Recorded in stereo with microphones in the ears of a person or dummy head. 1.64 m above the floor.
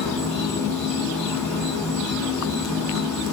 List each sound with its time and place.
0.0 s an insect: 15° left (ahead or behind), 1.5 m